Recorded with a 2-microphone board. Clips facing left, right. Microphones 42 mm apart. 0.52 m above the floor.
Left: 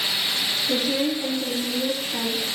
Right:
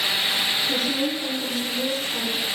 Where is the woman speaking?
20° left (ahead or behind), 3.5 m.